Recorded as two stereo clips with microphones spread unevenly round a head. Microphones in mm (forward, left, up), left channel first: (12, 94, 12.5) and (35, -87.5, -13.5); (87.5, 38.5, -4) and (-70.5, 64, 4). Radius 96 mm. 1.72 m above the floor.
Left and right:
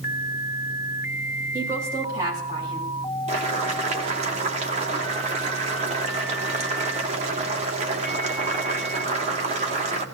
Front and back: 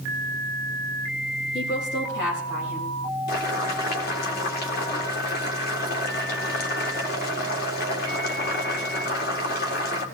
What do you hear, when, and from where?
1.5 s a woman speaking: 5° right, 9 m; by 3.0 s 20° right, 8.5 m
3.3 s boiling: 30° right, 2 m